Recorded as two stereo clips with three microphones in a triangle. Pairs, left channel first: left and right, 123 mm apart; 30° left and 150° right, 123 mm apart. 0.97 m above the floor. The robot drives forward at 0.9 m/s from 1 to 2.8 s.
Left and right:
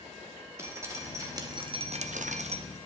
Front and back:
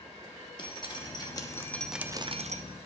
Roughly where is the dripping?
Ahead right.